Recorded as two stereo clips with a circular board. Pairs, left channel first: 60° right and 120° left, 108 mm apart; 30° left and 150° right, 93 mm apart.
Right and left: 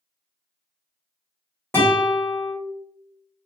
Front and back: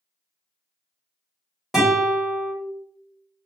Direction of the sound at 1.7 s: 70° right.